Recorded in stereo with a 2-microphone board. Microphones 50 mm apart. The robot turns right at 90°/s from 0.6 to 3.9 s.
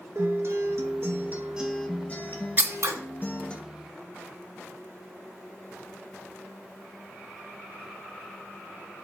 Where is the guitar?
105° right, 0.8 m; by 3.6 s 160° left, 0.8 m.